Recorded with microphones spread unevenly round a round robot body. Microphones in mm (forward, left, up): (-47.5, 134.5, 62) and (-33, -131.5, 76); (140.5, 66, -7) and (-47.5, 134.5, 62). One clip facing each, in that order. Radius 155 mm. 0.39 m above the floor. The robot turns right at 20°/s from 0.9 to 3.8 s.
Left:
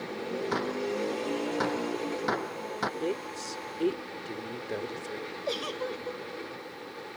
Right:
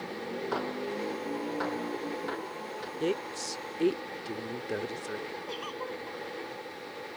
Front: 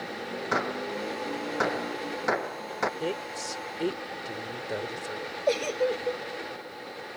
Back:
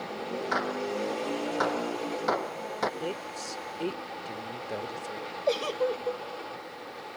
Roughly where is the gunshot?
Ahead left.